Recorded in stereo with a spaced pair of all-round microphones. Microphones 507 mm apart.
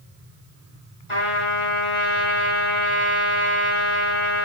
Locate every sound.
1.1 s a trumpet: 85° left, 5 m